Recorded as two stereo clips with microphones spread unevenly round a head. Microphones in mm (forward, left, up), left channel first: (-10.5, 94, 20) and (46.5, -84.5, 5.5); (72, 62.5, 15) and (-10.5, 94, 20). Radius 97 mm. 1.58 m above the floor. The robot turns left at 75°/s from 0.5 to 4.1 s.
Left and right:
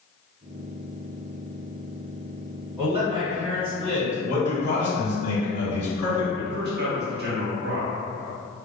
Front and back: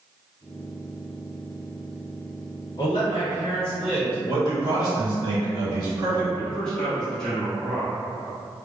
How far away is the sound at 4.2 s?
About 1.6 m.